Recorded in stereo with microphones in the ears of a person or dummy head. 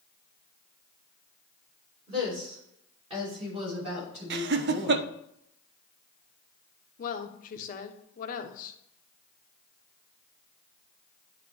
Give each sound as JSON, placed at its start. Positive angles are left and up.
{"t": 2.1, "sound": "a woman speaking", "side_deg": -25, "distance_m": 4.5}
{"t": 4.3, "sound": "laughter", "side_deg": -55, "distance_m": 0.6}
{"t": 7.0, "sound": "a woman speaking", "side_deg": 50, "distance_m": 1.1}